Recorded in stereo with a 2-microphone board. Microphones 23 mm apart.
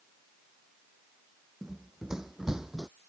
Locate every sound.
1.6 s running footsteps: 20° right (ahead or behind); by 2.9 s 25° right (ahead or behind)